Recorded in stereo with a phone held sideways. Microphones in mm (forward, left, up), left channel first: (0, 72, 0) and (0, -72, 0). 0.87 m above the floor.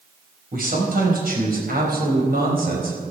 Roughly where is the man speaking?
Right.